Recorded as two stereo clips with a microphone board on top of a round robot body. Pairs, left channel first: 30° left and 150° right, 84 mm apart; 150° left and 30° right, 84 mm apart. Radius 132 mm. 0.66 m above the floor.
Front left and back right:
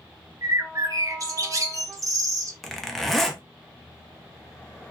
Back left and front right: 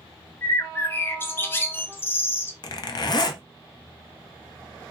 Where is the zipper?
115° left, 0.6 m.